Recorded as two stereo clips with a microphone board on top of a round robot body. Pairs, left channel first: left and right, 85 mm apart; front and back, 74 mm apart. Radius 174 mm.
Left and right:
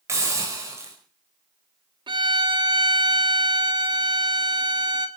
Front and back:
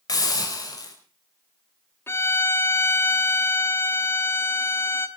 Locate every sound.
0.1 s a hiss: 35° right, 5 m
2.1 s a violin: 60° right, 1.6 m